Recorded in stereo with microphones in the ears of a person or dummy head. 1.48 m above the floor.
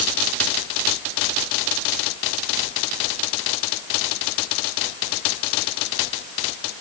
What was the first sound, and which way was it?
Only background noise.